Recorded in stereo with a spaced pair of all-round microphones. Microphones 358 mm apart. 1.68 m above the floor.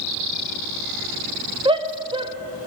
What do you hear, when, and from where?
1.6 s a shout: 15° right (ahead or behind), 0.5 m